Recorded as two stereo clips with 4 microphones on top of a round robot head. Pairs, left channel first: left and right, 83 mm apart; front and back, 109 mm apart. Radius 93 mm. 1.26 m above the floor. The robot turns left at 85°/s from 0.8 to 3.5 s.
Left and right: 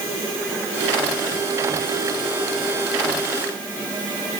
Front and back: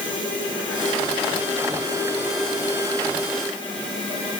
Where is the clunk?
I don't hear a clunk.